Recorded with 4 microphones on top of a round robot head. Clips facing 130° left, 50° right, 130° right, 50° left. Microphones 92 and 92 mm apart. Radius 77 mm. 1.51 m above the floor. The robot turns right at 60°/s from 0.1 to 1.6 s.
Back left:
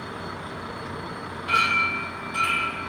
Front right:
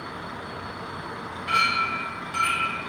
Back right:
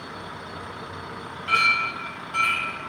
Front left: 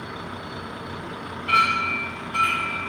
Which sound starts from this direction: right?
A clink, at 1.5 s.